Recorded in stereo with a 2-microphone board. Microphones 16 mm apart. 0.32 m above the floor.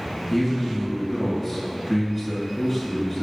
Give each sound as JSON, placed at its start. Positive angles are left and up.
{"t": 0.3, "sound": "a man speaking", "side_deg": -5, "distance_m": 2.0}